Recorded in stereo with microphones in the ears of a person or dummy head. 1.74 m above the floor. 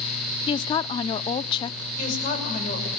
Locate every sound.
0.5 s a woman speaking: 35° left (ahead or behind), 0.7 m
2.0 s a woman speaking: 50° left (ahead or behind), 6 m